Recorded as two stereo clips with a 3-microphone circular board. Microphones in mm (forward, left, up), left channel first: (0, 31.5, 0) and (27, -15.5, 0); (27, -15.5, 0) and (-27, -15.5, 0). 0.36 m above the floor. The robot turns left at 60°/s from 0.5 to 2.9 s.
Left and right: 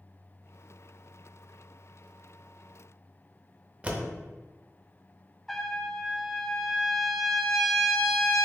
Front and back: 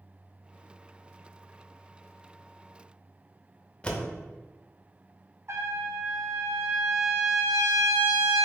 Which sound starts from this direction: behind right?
A trumpet, at 5.5 s.